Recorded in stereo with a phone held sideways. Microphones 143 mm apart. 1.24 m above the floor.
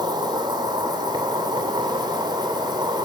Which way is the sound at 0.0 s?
30° right (ahead or behind).